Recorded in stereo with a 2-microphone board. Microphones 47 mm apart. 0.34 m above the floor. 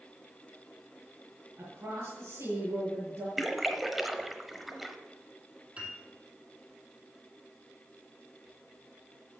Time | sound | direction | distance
1.6 | a woman speaking | 65° right (ahead or behind) | 4 m
3.4 | a splash | 5° right (ahead or behind) | 0.8 m
5.8 | a piano | 25° right (ahead or behind) | 3 m